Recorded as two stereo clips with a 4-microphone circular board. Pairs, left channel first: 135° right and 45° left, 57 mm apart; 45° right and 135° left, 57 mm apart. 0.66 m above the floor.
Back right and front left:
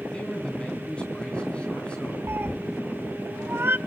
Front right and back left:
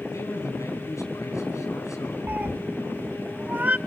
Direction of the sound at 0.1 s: 65° right.